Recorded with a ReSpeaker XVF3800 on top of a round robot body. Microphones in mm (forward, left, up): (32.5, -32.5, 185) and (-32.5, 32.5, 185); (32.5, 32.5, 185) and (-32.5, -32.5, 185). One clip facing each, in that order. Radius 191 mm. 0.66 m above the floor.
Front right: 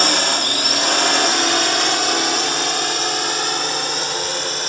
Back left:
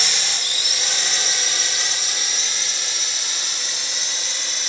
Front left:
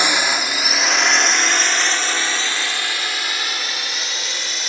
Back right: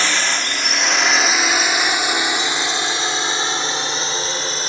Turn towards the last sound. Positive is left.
turn(degrees=-80)